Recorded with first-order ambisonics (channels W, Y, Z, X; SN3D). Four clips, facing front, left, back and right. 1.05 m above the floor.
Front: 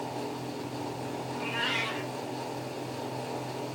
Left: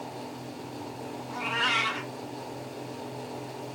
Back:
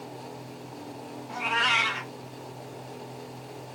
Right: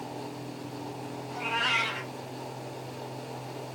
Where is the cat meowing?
160° left, 3 m.